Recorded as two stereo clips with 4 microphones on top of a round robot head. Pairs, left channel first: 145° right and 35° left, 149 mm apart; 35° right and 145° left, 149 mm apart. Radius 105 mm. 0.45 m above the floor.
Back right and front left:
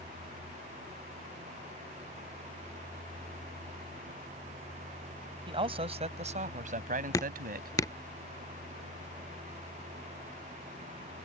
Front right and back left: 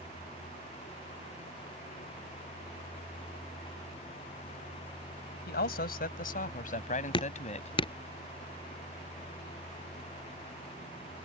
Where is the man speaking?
20° right; by 7.8 s 10° left.